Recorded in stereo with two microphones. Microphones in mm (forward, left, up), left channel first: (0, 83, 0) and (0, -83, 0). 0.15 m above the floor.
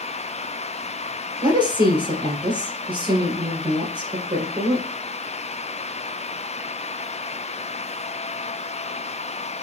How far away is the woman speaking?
About 2.5 m.